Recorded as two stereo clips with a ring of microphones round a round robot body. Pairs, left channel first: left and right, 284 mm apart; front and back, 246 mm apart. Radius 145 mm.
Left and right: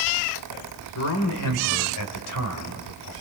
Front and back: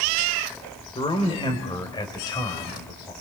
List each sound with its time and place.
0.9 s a man speaking: 70° left, 2.5 m; by 3.1 s 75° left, 4 m